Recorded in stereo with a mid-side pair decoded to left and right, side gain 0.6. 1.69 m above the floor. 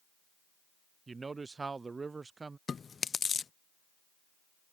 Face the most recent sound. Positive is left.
turn(degrees=30)